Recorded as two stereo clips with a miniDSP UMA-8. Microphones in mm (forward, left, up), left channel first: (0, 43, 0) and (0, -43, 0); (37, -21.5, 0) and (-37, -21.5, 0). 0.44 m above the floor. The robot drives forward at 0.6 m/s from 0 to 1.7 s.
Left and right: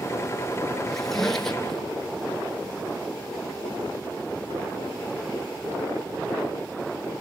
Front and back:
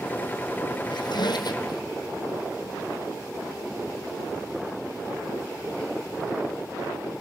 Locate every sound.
0.9 s a squeak: 5° left, 1.6 m